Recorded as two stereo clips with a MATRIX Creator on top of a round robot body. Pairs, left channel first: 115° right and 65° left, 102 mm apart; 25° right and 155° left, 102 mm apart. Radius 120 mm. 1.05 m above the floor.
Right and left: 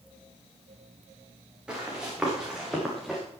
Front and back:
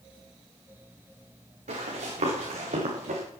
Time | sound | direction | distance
1.7 | running footsteps | 150° left | 7.5 m